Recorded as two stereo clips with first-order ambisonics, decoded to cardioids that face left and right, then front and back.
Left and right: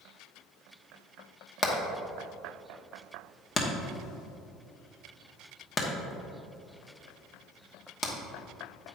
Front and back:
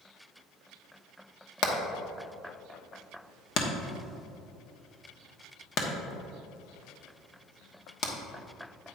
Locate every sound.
1.6 s hammering: 30° left, 1.0 m